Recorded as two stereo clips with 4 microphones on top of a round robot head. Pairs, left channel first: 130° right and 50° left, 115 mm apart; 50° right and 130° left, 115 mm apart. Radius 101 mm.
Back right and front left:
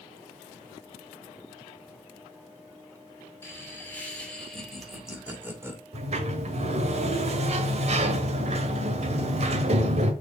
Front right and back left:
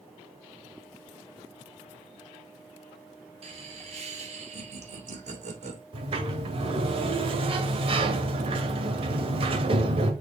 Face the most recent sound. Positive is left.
turn(degrees=85)